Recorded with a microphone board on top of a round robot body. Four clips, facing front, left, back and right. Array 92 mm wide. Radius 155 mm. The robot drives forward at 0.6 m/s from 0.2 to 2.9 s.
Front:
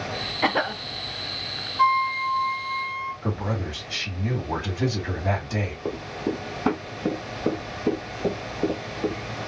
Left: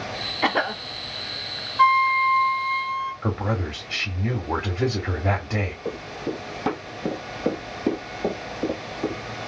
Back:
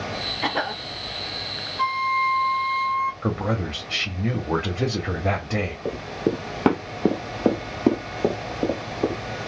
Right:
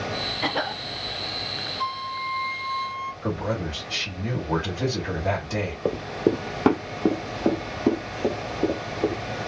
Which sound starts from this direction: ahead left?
A cough, at 0.4 s.